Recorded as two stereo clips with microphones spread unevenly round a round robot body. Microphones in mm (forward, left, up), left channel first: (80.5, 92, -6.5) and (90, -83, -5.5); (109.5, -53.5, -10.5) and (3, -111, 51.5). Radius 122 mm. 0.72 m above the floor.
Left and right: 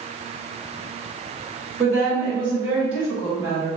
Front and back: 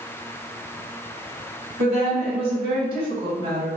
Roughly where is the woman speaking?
Behind right.